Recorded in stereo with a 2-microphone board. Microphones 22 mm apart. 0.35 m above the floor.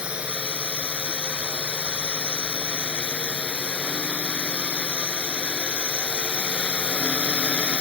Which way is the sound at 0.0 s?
60° right (ahead or behind).